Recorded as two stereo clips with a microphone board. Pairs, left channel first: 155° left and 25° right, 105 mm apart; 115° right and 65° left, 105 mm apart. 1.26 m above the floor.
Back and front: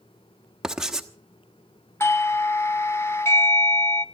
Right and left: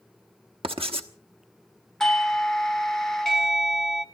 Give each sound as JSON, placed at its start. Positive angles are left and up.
{"t": 0.6, "sound": "writing", "azimuth_deg": 60, "distance_m": 1.1}
{"t": 2.0, "sound": "a doorbell", "azimuth_deg": 165, "distance_m": 0.8}